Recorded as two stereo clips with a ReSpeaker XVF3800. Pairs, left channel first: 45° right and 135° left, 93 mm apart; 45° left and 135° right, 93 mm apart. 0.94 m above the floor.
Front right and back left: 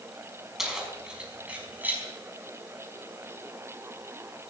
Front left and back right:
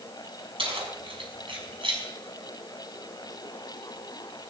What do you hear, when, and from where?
0.6 s keys jangling: 140° right, 4.5 m; by 2.0 s 155° right, 4.5 m